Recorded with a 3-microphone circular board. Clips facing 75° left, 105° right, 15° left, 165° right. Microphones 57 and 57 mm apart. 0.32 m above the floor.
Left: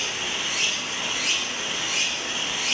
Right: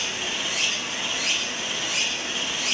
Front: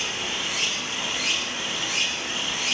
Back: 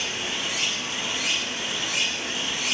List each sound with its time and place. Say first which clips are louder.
0.0 s running water: even, even; 50° left, 2.0 m